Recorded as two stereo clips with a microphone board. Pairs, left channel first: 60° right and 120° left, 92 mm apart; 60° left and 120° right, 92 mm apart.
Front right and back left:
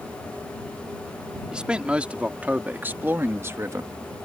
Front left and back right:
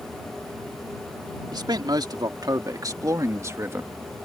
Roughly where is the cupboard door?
I don't hear a cupboard door.